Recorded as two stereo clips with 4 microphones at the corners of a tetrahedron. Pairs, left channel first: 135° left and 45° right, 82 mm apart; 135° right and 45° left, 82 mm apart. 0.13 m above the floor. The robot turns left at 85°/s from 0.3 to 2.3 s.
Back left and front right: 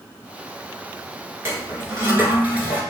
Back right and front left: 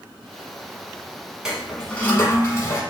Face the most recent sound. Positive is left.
turn(degrees=-105)